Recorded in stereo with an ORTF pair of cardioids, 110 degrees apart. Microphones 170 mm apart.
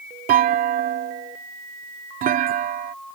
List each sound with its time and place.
0.3 s a clunk: 60° right